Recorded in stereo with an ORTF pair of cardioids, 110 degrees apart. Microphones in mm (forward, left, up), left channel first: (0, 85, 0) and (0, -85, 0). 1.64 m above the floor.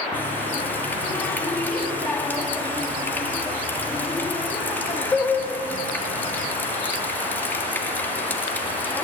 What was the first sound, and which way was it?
A running tap, 10° left.